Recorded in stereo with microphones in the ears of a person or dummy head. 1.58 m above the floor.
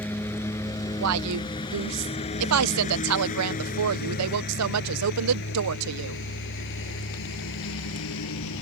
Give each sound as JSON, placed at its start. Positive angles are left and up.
{"t": 0.0, "sound": "a lawn mower", "side_deg": 10}
{"t": 1.0, "sound": "a woman speaking", "side_deg": -85}